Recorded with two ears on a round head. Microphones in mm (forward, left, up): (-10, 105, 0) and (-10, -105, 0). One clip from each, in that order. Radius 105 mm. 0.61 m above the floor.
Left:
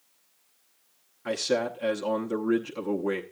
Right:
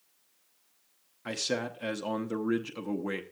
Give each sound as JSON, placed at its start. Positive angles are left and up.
{"t": 1.2, "sound": "a man speaking", "side_deg": -10, "distance_m": 0.9}